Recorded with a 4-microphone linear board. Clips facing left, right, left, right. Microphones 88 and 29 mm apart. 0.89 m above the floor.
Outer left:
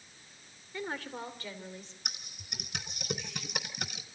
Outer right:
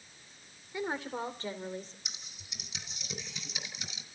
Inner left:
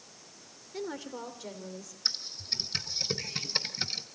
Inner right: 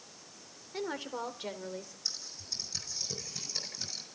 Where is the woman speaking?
15° right (ahead or behind), 3 m; by 1.9 s 40° right (ahead or behind), 3.5 m.